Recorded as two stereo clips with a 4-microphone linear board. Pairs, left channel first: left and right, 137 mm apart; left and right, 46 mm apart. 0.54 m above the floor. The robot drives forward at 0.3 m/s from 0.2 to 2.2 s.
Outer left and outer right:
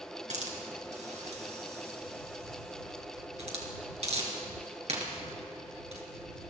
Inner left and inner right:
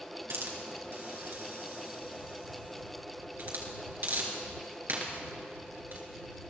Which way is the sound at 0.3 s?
65° right (ahead or behind).